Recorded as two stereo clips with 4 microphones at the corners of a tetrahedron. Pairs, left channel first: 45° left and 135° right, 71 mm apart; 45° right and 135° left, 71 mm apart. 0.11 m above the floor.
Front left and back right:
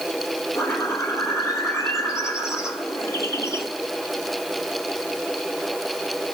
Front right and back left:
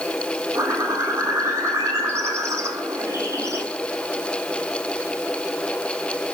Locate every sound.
0.6 s a bird: 90° left, 4 m